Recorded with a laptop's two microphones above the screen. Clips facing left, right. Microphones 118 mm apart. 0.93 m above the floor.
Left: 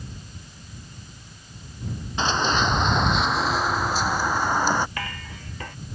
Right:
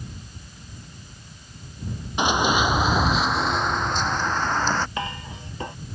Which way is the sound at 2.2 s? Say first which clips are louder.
Right 2 dB; 15° right (ahead or behind).